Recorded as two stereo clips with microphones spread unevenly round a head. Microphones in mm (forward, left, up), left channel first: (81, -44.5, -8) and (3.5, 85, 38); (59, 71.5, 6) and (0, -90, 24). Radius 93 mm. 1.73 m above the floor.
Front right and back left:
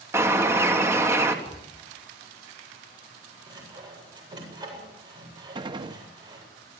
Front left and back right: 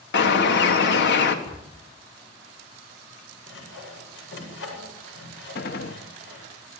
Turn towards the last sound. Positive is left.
turn(degrees=90)